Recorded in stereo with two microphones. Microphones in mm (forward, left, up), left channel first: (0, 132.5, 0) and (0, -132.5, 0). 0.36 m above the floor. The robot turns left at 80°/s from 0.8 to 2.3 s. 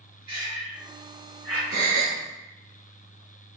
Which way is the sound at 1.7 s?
95° left.